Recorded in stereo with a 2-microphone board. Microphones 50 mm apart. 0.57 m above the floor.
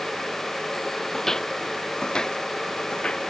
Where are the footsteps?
10° left (ahead or behind); by 3.2 s 20° left (ahead or behind).